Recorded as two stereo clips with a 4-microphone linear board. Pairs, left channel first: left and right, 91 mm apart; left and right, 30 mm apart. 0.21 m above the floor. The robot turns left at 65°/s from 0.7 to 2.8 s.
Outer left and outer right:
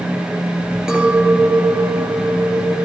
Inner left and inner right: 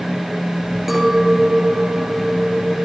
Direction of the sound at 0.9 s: 10° right.